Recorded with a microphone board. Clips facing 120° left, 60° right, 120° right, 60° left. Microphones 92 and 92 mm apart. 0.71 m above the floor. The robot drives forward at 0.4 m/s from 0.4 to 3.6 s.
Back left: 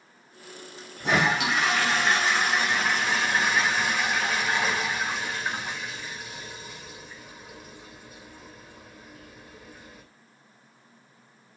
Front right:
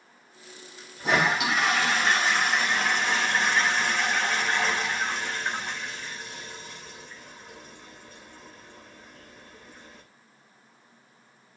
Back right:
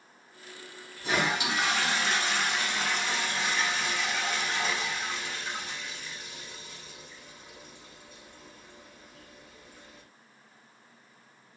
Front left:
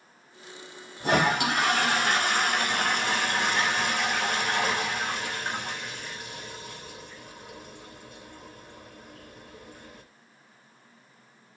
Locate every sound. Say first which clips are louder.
1.0 s a toilet flushing: even, front left 5 dB; 30° left, 4.5 m; by 10.0 s 35° left, 3.5 m